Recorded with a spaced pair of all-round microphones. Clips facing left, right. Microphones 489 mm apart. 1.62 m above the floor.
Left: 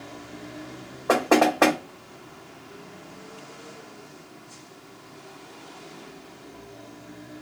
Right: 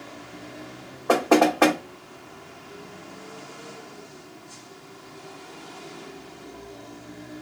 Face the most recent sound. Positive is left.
turn(degrees=-5)  # may be behind; listen again after turning